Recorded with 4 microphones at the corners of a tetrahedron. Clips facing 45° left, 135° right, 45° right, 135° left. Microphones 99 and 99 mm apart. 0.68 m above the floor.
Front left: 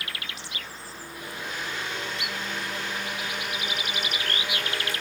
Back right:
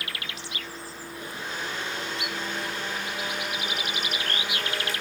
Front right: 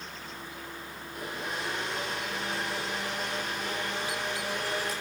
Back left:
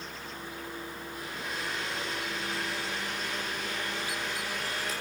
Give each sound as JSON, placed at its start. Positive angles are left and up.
{"t": 1.1, "sound": "a blender", "azimuth_deg": -80, "distance_m": 8.5}